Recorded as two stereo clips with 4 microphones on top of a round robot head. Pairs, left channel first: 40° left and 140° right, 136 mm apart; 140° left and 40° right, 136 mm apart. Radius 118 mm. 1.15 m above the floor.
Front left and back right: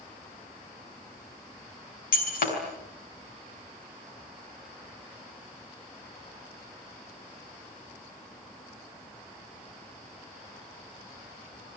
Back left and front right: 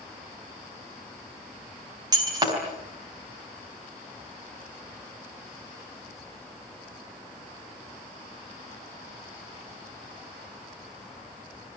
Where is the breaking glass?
20° left, 5.5 m.